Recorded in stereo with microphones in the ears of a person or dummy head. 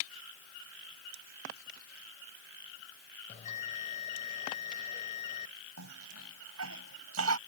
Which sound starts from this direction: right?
A cough, at 5.8 s.